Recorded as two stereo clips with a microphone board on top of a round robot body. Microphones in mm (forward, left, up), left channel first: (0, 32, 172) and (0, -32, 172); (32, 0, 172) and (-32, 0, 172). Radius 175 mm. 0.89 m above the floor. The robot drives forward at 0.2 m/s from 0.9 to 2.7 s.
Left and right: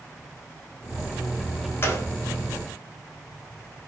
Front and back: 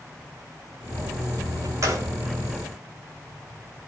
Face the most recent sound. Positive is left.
turn(degrees=150)